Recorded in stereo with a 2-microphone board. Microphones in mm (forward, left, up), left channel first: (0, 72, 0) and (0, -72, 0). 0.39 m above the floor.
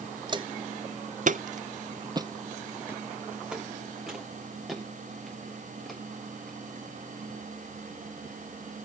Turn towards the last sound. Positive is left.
turn(degrees=5)  # may be behind; listen again after turning